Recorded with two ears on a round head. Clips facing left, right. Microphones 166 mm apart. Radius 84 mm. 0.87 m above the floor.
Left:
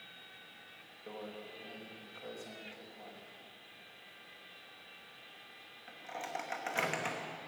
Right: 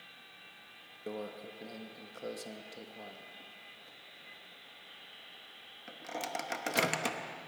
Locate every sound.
1.1 s a microwave: 50° right (ahead or behind), 1.0 m